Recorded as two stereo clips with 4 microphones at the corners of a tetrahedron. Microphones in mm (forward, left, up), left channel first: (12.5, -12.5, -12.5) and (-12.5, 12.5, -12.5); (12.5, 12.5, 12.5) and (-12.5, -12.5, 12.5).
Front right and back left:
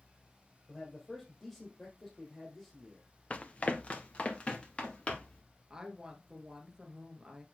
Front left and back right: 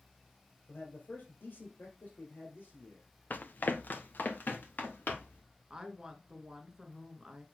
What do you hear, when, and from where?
0.7 s a man speaking: 30° left, 2.5 m
3.3 s running footsteps: 10° left, 0.9 m
5.7 s a woman speaking: straight behind, 1.2 m